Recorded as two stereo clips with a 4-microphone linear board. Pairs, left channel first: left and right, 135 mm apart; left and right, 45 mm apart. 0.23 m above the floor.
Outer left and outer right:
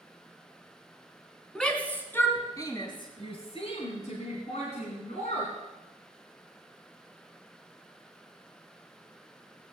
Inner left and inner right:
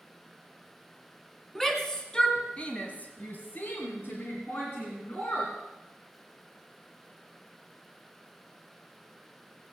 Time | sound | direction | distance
1.6 | a shout | 5° left (ahead or behind) | 3 m